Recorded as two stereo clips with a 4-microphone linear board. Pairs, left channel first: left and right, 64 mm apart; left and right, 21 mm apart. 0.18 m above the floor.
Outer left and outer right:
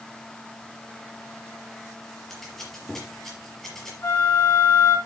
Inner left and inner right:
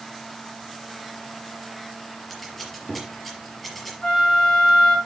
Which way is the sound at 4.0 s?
30° left (ahead or behind).